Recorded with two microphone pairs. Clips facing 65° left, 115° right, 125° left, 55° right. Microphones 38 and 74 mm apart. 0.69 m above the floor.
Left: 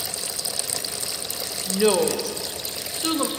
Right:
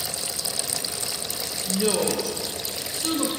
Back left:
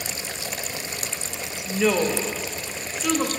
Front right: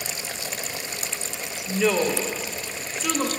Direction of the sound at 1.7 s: 35° left.